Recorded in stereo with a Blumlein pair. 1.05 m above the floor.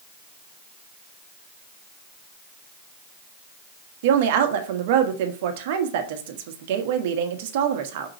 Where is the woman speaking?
50° right, 1.5 m.